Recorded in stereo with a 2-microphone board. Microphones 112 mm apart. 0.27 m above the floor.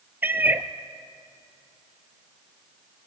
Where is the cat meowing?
15° right (ahead or behind), 0.8 m.